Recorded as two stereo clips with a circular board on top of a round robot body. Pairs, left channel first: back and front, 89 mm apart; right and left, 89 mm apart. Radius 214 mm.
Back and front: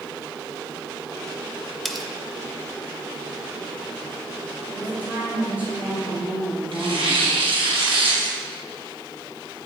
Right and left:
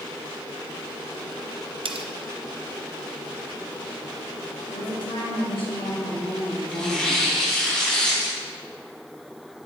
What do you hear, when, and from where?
1.9 s cutlery clinking: 90° left, 0.9 m
4.7 s a woman speaking: 75° right, 2.5 m
6.7 s tearing paper: 10° right, 2.5 m